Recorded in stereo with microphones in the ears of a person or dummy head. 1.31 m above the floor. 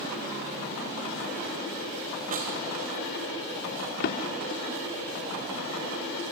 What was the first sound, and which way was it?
A snare drum, 45° right (ahead or behind).